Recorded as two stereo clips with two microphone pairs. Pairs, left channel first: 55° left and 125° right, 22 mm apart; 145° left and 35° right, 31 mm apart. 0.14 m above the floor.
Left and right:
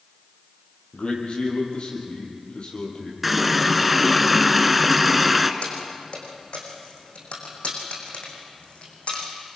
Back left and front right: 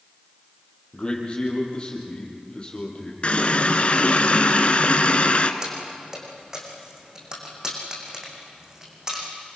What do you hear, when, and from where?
0.9 s a man speaking: 90° left, 5 m
3.2 s a running tap: 155° left, 1.1 m
5.6 s keys jangling: 35° left, 5 m